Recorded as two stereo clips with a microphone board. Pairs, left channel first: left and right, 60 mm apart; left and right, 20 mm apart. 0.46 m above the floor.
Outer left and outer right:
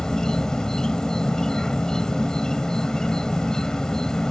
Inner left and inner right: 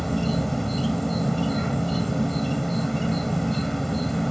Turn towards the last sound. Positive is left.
turn(degrees=10)  # may be behind; listen again after turning